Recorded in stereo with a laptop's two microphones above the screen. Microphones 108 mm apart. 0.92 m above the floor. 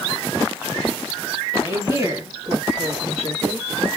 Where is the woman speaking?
25° right (ahead or behind), 1.8 m; by 3.7 s 80° right, 1.4 m.